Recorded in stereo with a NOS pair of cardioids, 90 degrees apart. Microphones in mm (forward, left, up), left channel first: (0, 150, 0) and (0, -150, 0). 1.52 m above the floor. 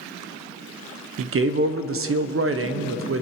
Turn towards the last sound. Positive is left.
turn(degrees=-45)